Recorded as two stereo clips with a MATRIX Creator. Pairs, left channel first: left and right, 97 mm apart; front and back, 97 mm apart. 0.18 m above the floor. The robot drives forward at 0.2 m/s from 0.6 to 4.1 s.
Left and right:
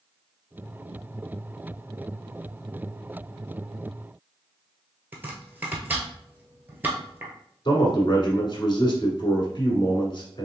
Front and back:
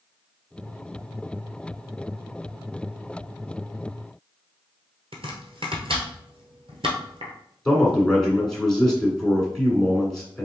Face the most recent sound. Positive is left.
turn(degrees=85)